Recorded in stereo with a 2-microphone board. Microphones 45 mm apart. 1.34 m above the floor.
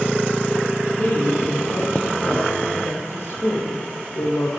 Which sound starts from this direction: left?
A woman speaking, at 1.0 s.